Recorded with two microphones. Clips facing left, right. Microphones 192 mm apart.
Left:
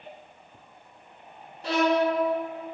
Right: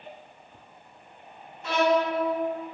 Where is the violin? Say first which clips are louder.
Even; 35° left (ahead or behind), 1.0 m.